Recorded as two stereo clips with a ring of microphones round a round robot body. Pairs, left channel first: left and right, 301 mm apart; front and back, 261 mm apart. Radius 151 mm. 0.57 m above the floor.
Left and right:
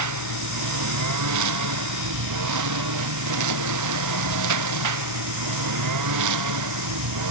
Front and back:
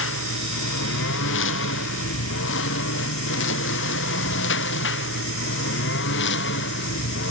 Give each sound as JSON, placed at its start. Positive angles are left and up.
{"t": 0.0, "sound": "a lawn mower", "azimuth_deg": -55}